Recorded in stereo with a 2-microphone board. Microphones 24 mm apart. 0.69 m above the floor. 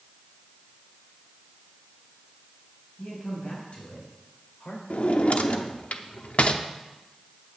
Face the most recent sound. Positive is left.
turn(degrees=65)  # may be behind; listen again after turning